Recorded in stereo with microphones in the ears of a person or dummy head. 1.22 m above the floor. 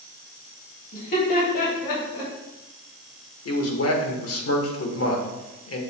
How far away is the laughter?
About 3 m.